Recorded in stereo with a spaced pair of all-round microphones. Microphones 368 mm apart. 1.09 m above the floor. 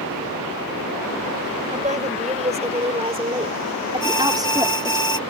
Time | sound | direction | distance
1.7 | a woman speaking | 20° right (ahead or behind) | ?
4.0 | an alarm | 60° right (ahead or behind) | ?